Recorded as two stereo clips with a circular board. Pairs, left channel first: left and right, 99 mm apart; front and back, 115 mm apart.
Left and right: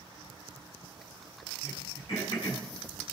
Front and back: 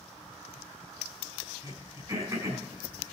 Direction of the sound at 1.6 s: 120° left.